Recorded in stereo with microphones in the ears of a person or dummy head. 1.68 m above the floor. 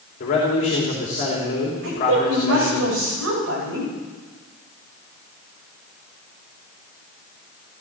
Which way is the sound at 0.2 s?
40° left (ahead or behind).